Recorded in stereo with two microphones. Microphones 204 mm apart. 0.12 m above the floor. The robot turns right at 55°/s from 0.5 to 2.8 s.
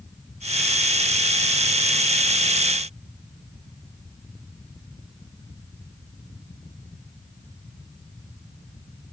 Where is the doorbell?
No doorbell in this recording.